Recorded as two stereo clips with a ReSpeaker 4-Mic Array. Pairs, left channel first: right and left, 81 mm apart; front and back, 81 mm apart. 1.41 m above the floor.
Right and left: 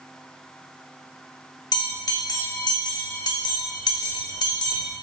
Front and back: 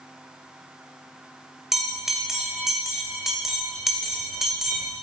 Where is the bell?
95° right, 1.7 m.